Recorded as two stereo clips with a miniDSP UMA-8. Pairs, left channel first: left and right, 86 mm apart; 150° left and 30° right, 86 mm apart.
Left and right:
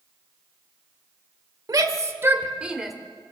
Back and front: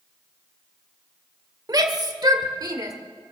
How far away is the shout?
About 1.5 m.